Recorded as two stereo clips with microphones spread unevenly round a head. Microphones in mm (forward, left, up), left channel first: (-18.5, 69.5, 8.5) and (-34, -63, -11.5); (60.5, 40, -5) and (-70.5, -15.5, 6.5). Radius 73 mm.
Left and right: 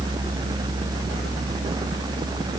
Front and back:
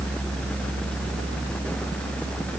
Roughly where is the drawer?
No drawer in this recording.